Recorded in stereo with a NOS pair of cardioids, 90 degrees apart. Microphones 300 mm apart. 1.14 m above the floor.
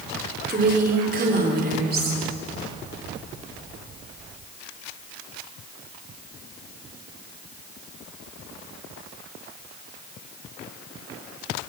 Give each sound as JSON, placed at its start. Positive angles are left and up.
{"t": 0.5, "sound": "a woman speaking", "azimuth_deg": -30, "distance_m": 4.0}